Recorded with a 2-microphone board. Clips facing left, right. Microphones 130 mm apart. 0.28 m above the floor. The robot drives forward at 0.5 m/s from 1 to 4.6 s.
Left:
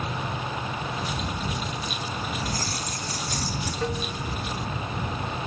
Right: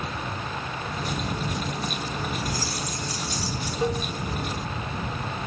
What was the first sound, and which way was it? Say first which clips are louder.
Keys jangling: right 1 dB; 50° left (ahead or behind).